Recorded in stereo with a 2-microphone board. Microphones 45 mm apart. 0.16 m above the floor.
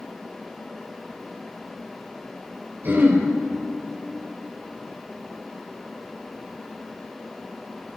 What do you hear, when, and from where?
2.8 s throat clearing: 50° right (ahead or behind), 3 m